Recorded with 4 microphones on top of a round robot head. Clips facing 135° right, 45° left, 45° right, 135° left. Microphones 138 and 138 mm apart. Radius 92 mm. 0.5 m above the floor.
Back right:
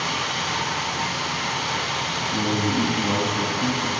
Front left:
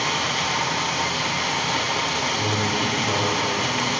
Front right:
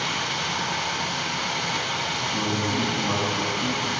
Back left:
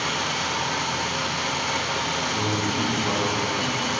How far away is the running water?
About 4.5 m.